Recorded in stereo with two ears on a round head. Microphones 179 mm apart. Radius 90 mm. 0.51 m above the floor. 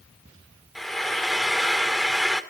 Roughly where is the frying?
Centre.